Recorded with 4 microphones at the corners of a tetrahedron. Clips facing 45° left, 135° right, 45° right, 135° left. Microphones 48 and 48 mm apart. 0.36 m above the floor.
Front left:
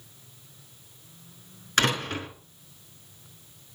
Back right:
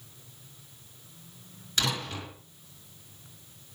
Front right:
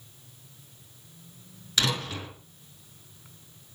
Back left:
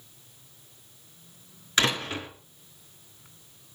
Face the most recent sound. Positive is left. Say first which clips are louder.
# front left 6 dB, back left 3 dB
turn(degrees=80)